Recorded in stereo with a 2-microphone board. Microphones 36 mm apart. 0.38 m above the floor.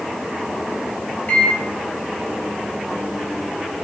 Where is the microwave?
40° left (ahead or behind), 0.7 m.